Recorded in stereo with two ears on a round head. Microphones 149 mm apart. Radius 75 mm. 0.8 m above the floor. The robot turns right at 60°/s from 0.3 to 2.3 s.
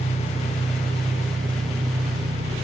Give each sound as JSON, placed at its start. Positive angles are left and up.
{"t": 0.0, "sound": "an engine running", "azimuth_deg": 165, "distance_m": 4.0}